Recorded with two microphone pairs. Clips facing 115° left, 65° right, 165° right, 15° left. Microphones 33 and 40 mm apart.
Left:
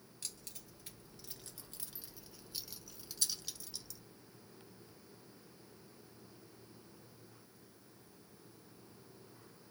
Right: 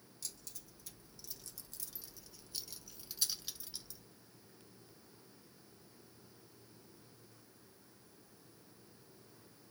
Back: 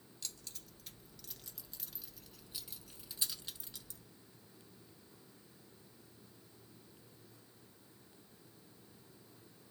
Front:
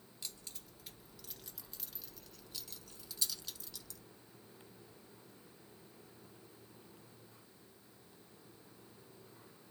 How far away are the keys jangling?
About 1.5 m.